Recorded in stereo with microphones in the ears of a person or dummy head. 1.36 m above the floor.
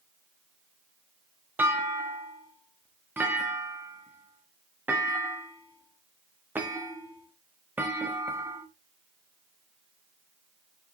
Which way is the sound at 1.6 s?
10° right (ahead or behind).